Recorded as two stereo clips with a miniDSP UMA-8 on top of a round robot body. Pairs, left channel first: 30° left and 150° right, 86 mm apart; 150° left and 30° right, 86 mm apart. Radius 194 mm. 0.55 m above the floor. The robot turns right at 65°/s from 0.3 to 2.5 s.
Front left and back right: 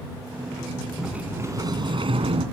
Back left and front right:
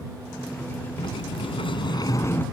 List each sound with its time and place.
1.0 s a sliding door: 125° left; by 2.4 s 140° right